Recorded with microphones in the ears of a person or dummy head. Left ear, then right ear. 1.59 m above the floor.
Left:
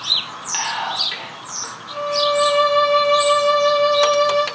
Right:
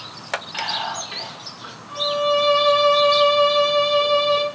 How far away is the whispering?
About 1.4 m.